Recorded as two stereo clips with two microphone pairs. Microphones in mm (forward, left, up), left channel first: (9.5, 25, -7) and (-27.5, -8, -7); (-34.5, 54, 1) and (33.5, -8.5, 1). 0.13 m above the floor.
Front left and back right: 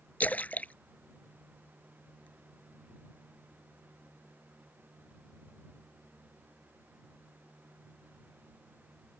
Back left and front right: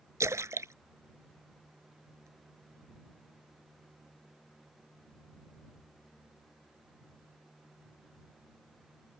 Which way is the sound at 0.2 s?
Straight ahead.